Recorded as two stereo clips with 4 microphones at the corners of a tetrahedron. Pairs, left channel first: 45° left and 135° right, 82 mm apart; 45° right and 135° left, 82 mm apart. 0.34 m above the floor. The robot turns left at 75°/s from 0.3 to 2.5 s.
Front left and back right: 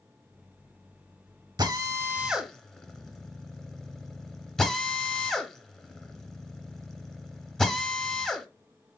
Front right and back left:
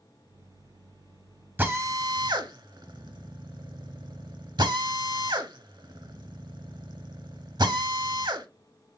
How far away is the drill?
About 0.7 m.